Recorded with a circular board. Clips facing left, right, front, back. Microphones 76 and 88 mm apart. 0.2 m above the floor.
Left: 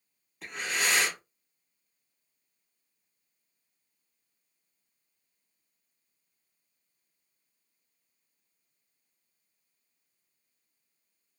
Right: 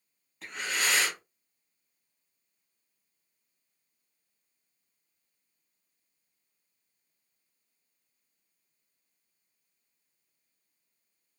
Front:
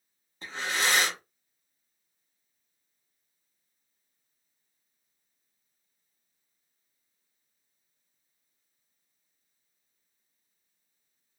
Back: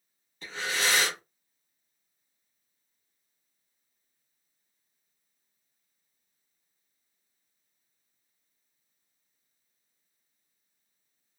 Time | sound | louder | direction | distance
0.4 | breathing | left 1 dB, front 1 dB | 5° left | 1.2 m